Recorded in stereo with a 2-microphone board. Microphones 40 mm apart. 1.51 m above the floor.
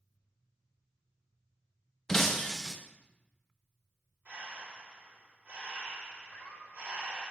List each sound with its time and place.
2.1 s breaking glass: 10° left (ahead or behind), 0.7 m
4.2 s breathing: 45° right (ahead or behind), 3 m
6.3 s laughter: 60° left (ahead or behind), 3 m